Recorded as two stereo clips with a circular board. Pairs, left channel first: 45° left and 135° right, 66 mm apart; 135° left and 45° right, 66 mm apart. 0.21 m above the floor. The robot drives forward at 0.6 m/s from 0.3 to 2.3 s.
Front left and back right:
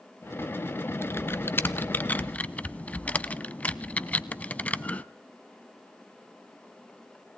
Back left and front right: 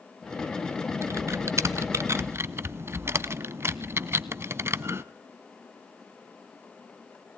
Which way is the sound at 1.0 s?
5° right.